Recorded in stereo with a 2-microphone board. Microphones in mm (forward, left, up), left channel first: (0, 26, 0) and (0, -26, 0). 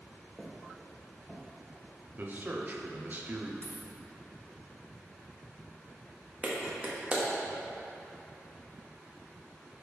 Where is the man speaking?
40° right (ahead or behind), 0.9 m.